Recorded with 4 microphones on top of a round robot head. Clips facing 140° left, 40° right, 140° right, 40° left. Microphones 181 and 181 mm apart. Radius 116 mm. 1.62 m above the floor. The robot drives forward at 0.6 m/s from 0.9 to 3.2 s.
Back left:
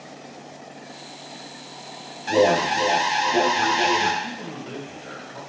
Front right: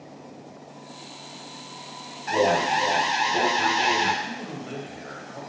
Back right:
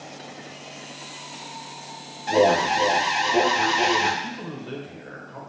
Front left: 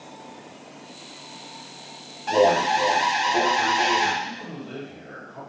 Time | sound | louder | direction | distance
2.3 | an alarm | back left 4 dB, even | 140° left | 0.6 m
4.2 | a man speaking | back left 1 dB, back right 1 dB | 155° right | 1.4 m